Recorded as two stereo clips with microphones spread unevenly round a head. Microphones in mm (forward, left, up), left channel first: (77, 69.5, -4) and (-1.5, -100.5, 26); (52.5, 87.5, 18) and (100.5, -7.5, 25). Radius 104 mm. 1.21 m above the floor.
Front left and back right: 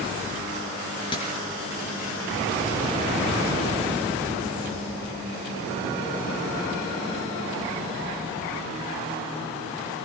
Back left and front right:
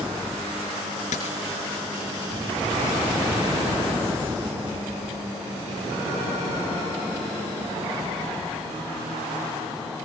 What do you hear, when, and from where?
1.1 s a dropped coin: 135° left, 3.5 m